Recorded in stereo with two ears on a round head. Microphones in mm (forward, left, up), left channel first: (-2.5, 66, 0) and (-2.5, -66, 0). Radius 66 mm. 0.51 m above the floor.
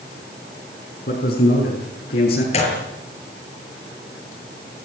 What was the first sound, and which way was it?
A man speaking, 80° left.